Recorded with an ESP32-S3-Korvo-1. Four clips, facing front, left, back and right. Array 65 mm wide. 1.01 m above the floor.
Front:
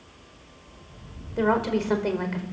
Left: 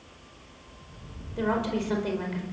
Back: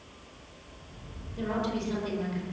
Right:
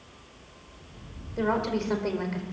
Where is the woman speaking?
10° right, 4 m.